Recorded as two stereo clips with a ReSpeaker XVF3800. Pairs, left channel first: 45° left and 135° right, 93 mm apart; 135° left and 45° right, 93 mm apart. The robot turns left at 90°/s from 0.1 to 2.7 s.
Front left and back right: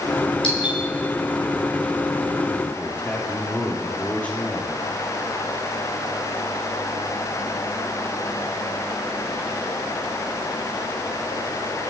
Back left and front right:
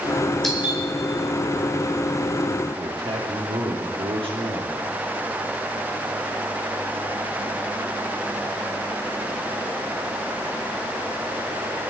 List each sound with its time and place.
0.4 s a doorbell: 50° left, 4 m; by 0.8 s 15° left, 4 m
2.8 s a man speaking: 30° right, 5 m